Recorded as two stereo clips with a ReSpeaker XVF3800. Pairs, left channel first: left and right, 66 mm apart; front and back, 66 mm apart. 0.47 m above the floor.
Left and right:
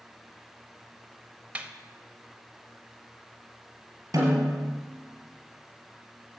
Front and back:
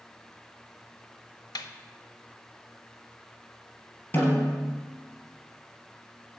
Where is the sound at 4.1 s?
55° right, 3.5 m.